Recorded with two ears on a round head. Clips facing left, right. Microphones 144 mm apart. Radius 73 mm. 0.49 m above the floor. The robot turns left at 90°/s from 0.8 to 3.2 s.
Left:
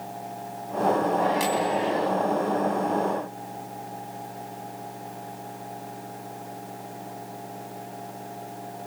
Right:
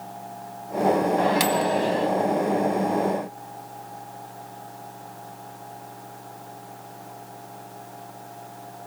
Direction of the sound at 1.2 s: 75° right.